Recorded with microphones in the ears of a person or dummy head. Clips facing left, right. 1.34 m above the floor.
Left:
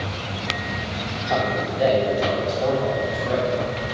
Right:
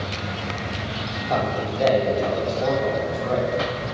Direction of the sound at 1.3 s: 5° left (ahead or behind).